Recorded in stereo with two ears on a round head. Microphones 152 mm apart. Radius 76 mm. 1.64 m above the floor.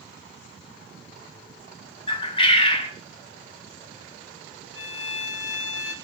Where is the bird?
30° left (ahead or behind), 3 m.